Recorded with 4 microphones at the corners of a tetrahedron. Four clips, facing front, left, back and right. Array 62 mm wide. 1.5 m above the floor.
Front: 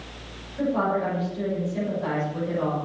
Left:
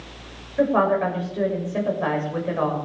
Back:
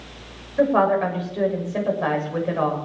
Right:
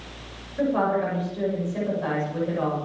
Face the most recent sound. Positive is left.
turn(degrees=145)